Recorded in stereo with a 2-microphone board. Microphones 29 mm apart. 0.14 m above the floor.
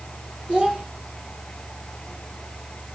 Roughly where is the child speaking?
Right.